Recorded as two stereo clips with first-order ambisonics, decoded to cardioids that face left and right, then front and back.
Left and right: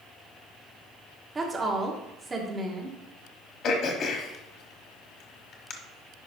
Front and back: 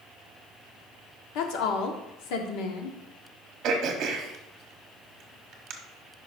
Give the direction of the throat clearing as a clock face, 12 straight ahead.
8 o'clock.